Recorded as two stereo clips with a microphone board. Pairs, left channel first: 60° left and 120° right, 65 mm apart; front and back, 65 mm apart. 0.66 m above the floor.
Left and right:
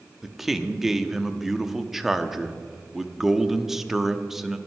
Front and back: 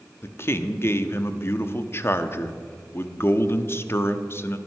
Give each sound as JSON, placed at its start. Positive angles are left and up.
{"t": 0.2, "sound": "a man speaking", "azimuth_deg": -35, "distance_m": 0.7}